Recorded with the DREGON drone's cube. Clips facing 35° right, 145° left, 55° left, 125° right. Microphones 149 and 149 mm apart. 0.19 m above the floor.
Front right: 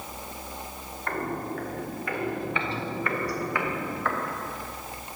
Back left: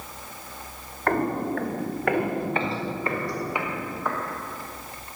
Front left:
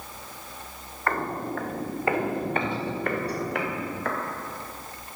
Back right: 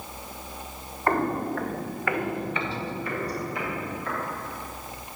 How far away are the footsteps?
About 1.0 m.